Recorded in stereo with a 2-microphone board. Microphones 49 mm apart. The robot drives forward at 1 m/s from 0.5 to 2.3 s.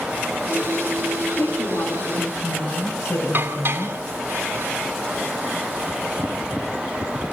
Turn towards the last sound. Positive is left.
turn(degrees=-50)  # may be behind; listen again after turning